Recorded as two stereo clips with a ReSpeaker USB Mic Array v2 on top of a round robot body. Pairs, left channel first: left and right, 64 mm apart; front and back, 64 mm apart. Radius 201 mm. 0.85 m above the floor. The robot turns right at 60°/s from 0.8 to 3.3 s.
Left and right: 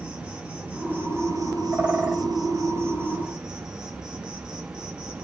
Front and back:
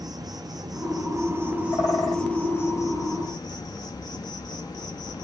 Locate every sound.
0.0 s an insect: 165° right, 0.7 m; by 5.2 s 15° right, 0.7 m
1.7 s a bird: 35° right, 3 m; by 2.2 s straight ahead, 3 m